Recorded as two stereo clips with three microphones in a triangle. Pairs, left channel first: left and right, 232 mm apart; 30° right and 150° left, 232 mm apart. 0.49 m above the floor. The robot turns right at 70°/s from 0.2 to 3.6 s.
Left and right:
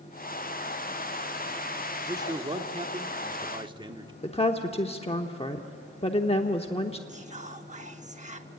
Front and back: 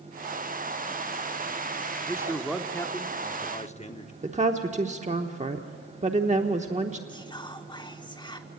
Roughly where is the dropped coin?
I don't hear a dropped coin.